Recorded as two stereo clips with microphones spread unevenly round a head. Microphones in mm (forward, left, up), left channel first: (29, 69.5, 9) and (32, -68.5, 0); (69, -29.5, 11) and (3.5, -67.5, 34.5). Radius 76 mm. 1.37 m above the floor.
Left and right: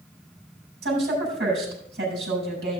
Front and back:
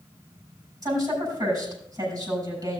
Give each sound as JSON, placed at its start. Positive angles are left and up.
{"t": 0.8, "sound": "a woman speaking", "azimuth_deg": -115, "distance_m": 6.5}